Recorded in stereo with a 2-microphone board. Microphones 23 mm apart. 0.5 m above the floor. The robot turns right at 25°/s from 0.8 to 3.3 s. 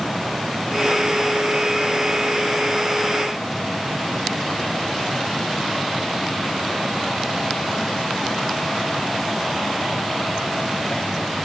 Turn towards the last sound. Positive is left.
No sound to turn to.